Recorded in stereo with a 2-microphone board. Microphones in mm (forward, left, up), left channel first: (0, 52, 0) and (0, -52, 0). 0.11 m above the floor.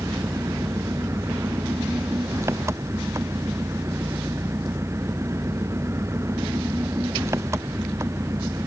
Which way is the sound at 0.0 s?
25° right (ahead or behind).